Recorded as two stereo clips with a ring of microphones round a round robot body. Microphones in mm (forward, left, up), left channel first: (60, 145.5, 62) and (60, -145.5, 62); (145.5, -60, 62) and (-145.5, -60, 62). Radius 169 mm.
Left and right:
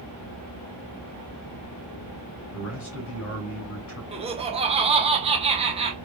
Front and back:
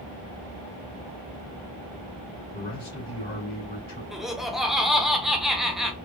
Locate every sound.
2.5 s a man speaking: 70° left, 2 m
4.1 s laughter: 95° right, 1.0 m